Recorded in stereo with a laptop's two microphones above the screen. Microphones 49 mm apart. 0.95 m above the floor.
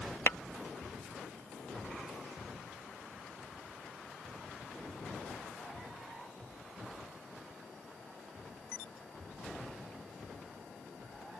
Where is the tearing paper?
I don't hear tearing paper.